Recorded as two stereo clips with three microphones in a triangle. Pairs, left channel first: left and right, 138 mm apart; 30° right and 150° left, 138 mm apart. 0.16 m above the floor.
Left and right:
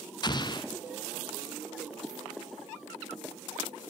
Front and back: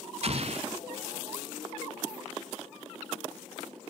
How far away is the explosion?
About 1.1 m.